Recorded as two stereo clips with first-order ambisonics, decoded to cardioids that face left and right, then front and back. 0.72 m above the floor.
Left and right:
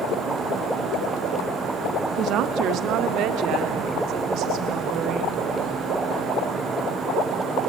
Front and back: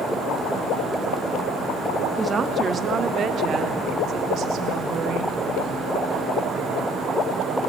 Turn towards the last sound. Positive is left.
turn(degrees=-135)